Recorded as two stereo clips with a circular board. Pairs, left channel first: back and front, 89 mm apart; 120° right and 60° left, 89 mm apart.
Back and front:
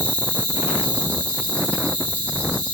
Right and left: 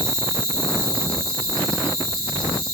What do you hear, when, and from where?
0.0 s an insect: 110° left, 2 m